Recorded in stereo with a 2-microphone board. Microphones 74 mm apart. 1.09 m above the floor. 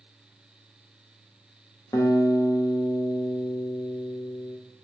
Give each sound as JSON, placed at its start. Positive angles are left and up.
{"t": 1.9, "sound": "a guitar", "side_deg": 50, "distance_m": 0.6}